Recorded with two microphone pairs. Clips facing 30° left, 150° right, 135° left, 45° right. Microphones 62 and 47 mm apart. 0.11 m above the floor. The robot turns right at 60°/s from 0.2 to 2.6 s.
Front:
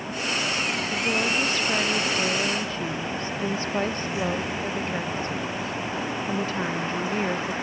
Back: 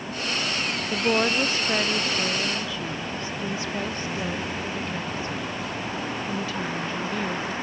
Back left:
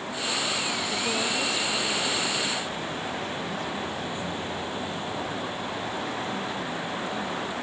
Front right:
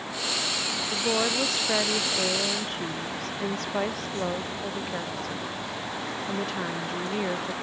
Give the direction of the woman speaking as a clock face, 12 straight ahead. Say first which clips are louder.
Back 4 dB, front right 4 dB; 4 o'clock.